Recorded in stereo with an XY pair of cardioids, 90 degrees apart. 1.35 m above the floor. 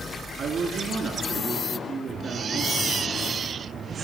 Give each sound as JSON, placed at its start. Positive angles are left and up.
{"t": 0.4, "sound": "a woman speaking", "azimuth_deg": -60, "distance_m": 3.0}